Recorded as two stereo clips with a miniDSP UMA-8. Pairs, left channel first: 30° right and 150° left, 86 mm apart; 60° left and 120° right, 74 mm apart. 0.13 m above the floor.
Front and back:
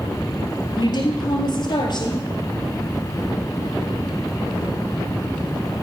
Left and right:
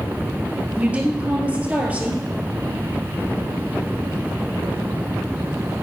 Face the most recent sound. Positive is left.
turn(degrees=-50)